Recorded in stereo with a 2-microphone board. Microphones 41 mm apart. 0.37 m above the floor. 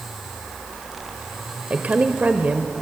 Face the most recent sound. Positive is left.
turn(degrees=-40)  # may be behind; listen again after turning